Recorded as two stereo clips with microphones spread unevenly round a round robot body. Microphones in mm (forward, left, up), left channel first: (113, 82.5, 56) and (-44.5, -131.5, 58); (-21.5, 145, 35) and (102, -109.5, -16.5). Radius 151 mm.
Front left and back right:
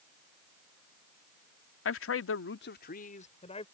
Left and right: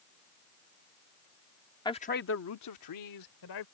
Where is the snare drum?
I don't hear a snare drum.